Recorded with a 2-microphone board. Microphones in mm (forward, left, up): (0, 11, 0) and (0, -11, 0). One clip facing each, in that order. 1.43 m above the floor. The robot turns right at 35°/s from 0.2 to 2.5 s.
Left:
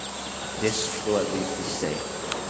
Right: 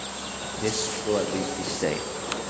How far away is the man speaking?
About 0.6 m.